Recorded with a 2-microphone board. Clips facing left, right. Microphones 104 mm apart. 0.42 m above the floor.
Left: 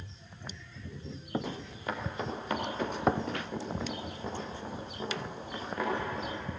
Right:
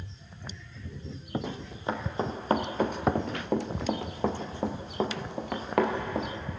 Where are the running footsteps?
20° right (ahead or behind), 4 m; by 6.3 s 65° right (ahead or behind), 5 m.